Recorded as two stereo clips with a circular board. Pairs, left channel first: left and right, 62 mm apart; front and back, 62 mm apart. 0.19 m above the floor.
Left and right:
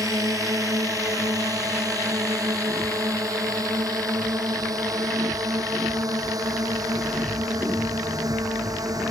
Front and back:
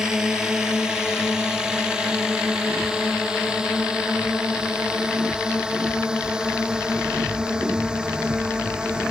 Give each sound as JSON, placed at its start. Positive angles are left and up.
{"t": 0.0, "sound": "a drone", "azimuth_deg": -105}